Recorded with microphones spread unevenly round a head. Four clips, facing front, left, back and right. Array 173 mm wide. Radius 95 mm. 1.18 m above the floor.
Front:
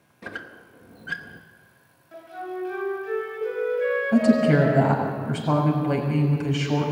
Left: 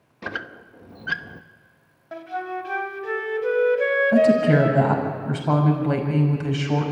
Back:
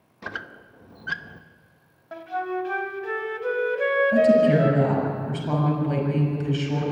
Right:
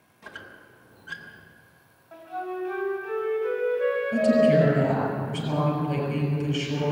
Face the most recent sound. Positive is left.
turn(degrees=50)